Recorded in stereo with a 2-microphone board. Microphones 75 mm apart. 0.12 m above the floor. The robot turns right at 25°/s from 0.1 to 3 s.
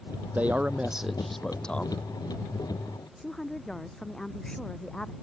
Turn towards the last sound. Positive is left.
turn(degrees=5)  # may be behind; listen again after turning